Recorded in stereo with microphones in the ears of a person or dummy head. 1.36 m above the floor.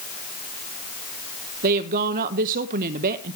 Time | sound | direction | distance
1.6 | a woman speaking | 45° right (ahead or behind) | 0.7 m